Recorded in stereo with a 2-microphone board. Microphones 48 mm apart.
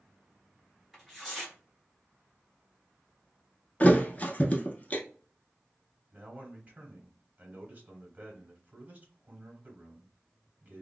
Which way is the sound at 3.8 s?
35° left (ahead or behind).